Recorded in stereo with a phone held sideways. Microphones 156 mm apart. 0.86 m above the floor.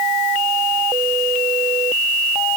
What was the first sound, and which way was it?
Only background noise.